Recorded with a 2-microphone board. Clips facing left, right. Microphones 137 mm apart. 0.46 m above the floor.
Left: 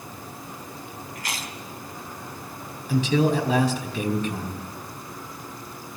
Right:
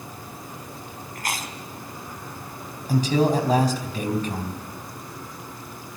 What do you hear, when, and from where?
1.1 s chewing: 50° right (ahead or behind), 2.5 m
2.9 s a man speaking: 40° right (ahead or behind), 4 m